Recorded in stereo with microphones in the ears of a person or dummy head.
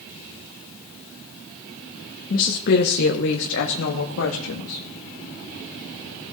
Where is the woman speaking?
40° left (ahead or behind), 1.3 m; by 4.8 s 80° left, 2 m.